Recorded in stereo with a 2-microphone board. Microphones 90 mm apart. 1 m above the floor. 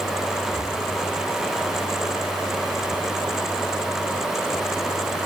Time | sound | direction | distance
0.5 | breathing | 50° right (ahead or behind) | 6.5 m